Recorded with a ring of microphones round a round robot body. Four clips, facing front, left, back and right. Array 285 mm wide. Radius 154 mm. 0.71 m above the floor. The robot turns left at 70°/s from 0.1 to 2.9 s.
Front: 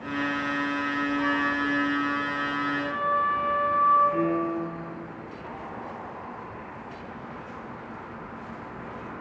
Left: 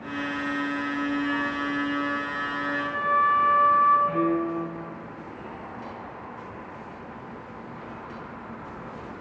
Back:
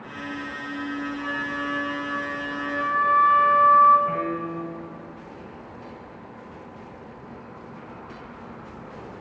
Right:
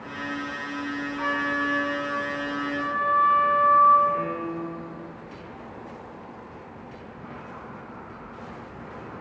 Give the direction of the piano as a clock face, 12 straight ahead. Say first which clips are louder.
Left 3 dB, front 2 dB; 7 o'clock.